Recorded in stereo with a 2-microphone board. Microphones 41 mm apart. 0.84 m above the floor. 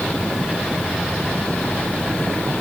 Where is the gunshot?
I don't hear a gunshot.